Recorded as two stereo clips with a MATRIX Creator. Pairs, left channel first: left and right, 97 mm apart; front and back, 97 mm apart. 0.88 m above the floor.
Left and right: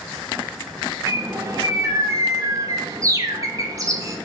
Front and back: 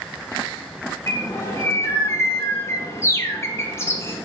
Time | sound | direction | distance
1.1 | a bird | 50° right | 0.5 m